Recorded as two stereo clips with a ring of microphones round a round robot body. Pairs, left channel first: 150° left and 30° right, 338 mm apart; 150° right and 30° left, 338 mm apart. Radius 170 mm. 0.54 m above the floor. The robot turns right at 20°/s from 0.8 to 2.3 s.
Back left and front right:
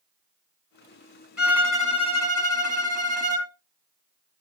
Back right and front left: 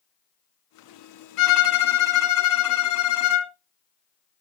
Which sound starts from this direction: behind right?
A violin, at 1.4 s.